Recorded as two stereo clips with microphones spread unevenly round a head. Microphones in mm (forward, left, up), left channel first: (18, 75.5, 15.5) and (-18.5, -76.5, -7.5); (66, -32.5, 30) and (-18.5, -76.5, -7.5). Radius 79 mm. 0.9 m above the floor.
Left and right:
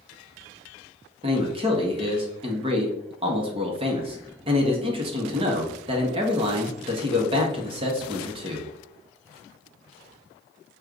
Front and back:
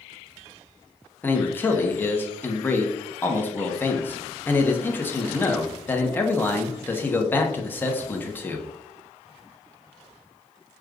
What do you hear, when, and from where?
1.2 s a man speaking: 55° right, 1.0 m